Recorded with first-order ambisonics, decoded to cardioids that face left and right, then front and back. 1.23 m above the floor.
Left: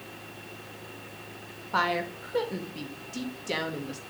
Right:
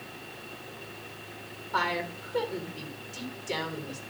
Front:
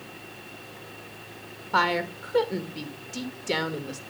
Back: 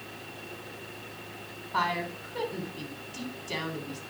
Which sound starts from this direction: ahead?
A woman speaking, at 1.7 s.